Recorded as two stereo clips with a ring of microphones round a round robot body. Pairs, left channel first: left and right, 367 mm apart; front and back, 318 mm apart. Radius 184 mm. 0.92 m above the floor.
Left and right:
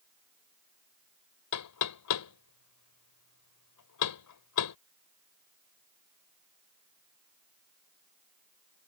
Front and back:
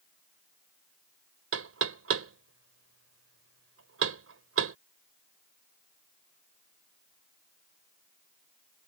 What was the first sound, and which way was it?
Knocking, 135° left.